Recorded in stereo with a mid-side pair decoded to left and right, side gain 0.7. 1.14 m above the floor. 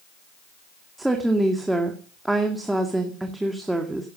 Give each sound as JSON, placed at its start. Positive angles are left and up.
{"t": 1.0, "sound": "a woman speaking", "azimuth_deg": -10, "distance_m": 2.0}